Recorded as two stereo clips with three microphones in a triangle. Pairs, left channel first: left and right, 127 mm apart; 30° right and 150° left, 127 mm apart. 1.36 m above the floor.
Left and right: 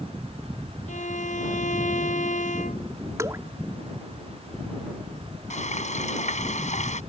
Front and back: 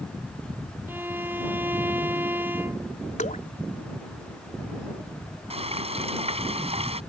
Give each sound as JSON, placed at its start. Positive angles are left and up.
{"t": 0.9, "sound": "a violin", "azimuth_deg": 75}
{"t": 3.2, "sound": "dripping", "azimuth_deg": -25}
{"t": 5.5, "sound": "frying", "azimuth_deg": 110}